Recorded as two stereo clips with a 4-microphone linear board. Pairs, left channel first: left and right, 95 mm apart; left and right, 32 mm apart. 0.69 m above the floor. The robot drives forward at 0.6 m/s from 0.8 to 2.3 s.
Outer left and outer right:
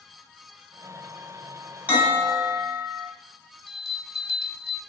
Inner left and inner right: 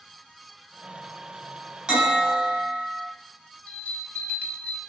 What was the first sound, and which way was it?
A bell, 15° right (ahead or behind).